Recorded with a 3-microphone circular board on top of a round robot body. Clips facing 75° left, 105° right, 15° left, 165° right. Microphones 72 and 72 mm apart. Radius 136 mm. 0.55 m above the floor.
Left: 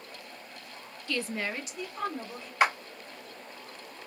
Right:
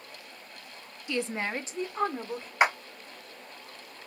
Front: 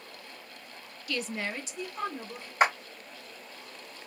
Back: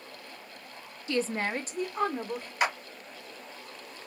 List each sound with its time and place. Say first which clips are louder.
1.1 s a woman speaking: right 2 dB, back 5 dB; 155° right, 0.7 m; by 2.5 s 145° right, 1.2 m
2.6 s a clap: right 1 dB, front 4 dB; 35° right, 1.5 m